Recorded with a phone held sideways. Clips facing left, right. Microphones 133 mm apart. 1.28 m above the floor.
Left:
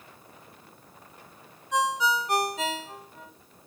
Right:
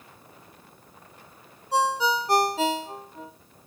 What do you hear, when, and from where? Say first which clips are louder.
1.7 s a ringtone: right 2 dB; 35° right (ahead or behind), 0.9 m